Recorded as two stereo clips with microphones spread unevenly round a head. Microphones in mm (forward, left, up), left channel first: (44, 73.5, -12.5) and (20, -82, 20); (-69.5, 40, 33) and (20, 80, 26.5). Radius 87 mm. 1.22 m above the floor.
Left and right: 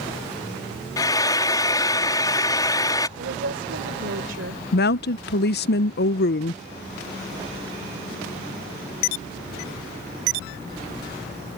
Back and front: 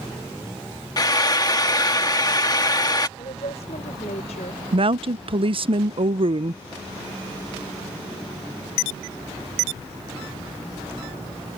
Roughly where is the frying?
Behind left.